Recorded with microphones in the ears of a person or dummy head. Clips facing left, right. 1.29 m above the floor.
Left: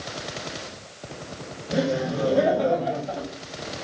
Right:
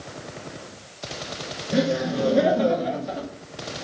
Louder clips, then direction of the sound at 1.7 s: Right 2 dB; 30° right (ahead or behind).